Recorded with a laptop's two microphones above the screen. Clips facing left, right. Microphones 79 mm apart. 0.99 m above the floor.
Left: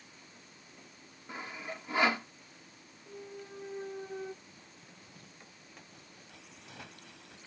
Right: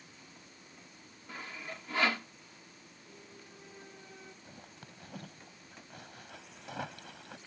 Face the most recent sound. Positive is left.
turn(degrees=-80)